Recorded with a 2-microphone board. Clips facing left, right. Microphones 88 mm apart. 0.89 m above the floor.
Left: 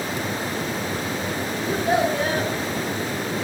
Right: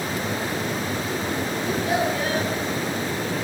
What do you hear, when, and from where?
1.6 s a child speaking: 35° left (ahead or behind), 4 m